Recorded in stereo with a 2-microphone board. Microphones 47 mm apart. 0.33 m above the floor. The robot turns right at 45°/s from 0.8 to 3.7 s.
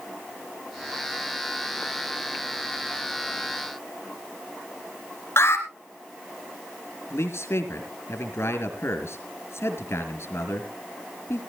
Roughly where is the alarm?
Left.